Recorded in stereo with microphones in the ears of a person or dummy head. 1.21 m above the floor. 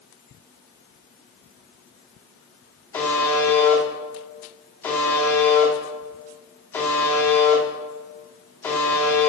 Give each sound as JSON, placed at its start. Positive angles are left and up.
{"t": 2.9, "sound": "a buzzer", "side_deg": 10, "distance_m": 2.5}